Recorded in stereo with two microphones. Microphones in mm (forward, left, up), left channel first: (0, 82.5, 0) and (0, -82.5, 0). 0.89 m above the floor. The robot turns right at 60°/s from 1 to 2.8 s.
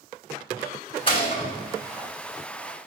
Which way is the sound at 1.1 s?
35° left (ahead or behind).